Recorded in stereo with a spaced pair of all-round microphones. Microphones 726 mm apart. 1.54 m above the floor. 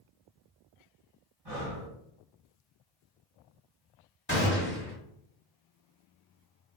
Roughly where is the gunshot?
Centre.